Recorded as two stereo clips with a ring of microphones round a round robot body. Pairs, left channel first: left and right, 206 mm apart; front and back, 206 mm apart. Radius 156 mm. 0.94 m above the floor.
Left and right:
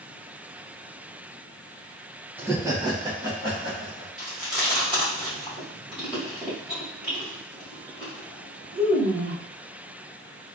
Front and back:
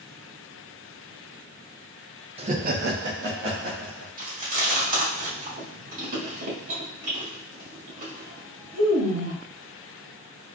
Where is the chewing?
175° right, 1.8 m.